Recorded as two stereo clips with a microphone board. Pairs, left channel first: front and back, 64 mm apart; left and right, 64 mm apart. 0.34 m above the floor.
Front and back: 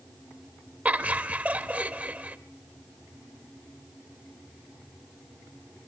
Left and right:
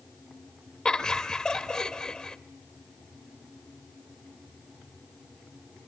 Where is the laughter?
155° left, 0.9 m.